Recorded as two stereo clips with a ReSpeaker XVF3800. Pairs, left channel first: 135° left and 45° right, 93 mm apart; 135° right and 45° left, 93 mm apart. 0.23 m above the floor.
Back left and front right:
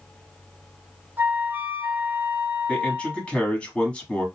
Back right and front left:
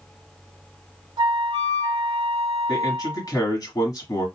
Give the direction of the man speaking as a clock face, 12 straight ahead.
5 o'clock.